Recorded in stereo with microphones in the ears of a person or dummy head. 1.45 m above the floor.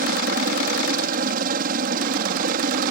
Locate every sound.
0.0 s a helicopter: 50° right (ahead or behind)